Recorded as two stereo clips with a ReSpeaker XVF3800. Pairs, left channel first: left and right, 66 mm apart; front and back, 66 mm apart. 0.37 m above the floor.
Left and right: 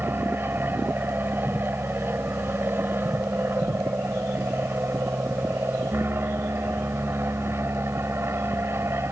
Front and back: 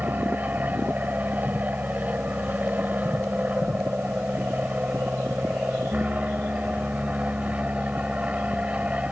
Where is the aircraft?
130° right; by 9.1 s 115° right.